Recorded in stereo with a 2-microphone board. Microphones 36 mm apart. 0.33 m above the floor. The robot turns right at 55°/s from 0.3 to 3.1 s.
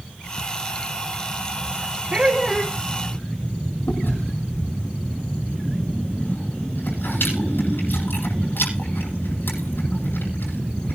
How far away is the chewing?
About 8.5 m.